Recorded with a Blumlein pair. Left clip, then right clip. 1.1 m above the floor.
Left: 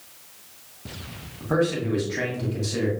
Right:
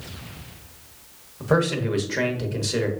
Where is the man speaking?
70° right, 1.1 m.